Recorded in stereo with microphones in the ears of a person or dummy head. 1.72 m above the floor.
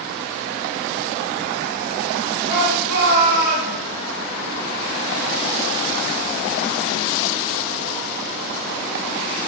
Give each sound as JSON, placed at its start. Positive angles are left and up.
{"t": 2.5, "sound": "a shout", "side_deg": -65, "distance_m": 4.5}